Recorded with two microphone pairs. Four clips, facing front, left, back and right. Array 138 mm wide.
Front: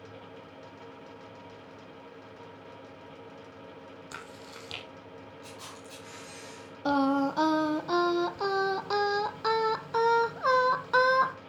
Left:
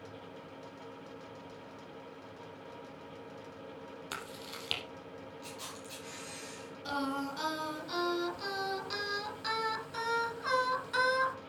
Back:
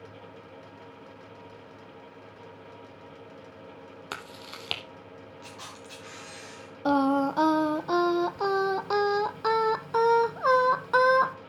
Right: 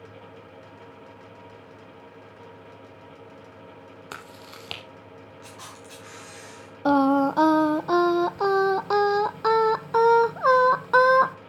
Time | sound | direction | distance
4.1 | chewing | 160° right | 2.5 m
5.4 | a camera shutter | 125° right | 5 m
6.8 | singing | 105° right | 0.7 m